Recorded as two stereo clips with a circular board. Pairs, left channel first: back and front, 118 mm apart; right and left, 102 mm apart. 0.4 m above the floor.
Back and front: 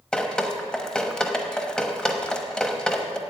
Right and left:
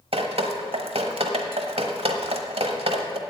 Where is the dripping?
100° left, 1.0 m.